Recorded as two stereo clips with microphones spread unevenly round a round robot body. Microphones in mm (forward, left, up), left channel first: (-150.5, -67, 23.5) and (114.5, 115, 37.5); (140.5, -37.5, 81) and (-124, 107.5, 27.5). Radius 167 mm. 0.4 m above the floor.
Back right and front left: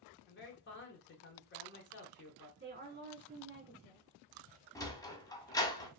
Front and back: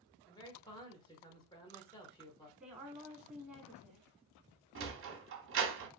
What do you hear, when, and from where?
0.3 s a man speaking: 110° right, 1.0 m
2.6 s a woman speaking: 80° left, 1.2 m
4.8 s a sliding door: 140° left, 0.6 m